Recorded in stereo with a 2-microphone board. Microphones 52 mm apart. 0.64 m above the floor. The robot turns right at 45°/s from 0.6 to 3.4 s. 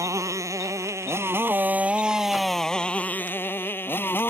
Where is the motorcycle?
80° right; by 4.3 s 45° left.